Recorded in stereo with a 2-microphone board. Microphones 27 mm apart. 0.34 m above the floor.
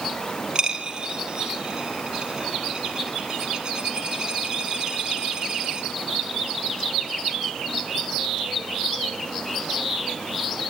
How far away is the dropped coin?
About 4 m.